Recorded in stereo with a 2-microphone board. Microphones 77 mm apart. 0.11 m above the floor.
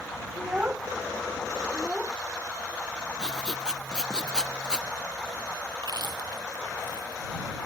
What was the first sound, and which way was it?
A child speaking, 20° right (ahead or behind).